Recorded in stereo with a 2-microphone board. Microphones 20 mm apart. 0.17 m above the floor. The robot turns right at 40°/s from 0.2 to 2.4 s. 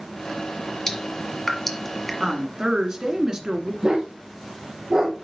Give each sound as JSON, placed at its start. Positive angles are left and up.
{"t": 0.9, "sound": "dripping", "side_deg": 25, "distance_m": 1.6}
{"t": 2.2, "sound": "a woman speaking", "side_deg": -35, "distance_m": 1.6}
{"t": 3.8, "sound": "a dog barking", "side_deg": -40, "distance_m": 2.0}